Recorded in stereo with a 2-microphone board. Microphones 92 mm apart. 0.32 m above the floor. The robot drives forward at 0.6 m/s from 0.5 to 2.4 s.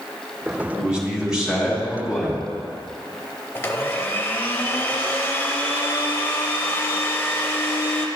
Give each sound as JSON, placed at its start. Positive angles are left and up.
{"t": 0.8, "sound": "a man speaking", "side_deg": -10, "distance_m": 1.6}
{"t": 3.5, "sound": "a blender", "side_deg": 25, "distance_m": 0.8}